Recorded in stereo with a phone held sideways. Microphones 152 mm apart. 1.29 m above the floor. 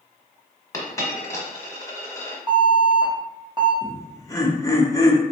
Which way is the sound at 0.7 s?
20° left (ahead or behind).